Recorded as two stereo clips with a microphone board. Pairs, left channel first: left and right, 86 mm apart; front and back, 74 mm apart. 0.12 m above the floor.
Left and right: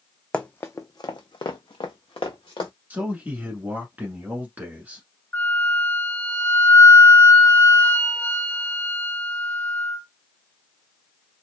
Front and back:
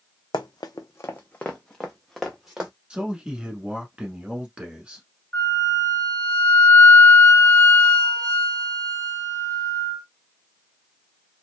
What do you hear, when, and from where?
0.3 s running footsteps: 10° left, 0.5 m; by 2.7 s 100° left, 1.2 m
2.9 s a man speaking: 125° right, 1.1 m
5.3 s a flute: 60° left, 1.7 m